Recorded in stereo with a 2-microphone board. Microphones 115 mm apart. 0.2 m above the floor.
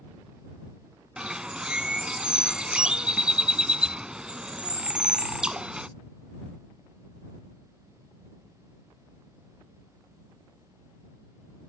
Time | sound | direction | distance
1.2 | a bird | 10° right (ahead or behind) | ?